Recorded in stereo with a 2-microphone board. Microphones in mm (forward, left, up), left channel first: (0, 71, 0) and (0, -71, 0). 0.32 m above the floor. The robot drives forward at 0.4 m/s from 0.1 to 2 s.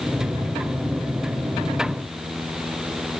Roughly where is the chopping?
I don't hear chopping.